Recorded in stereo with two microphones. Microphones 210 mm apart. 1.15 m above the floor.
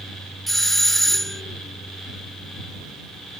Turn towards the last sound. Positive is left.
turn(degrees=0)  # may be behind; listen again after turning